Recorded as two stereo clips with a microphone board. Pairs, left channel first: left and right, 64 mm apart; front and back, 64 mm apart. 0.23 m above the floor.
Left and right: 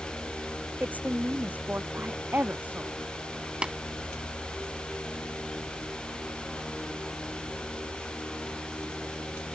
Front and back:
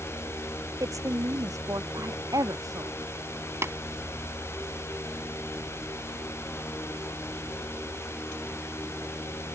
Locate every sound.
0.8 s a woman speaking: 155° right
3.6 s tapping: 160° right